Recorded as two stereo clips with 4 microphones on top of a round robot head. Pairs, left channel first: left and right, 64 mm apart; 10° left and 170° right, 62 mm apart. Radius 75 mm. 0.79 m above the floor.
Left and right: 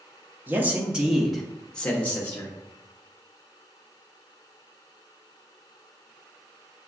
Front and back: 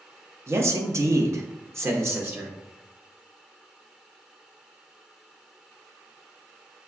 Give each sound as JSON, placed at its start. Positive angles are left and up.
{"t": 0.5, "sound": "a man speaking", "azimuth_deg": -145, "distance_m": 0.9}